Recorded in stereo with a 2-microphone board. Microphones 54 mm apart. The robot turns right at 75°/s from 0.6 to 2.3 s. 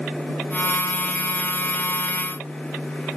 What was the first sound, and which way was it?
Only background noise.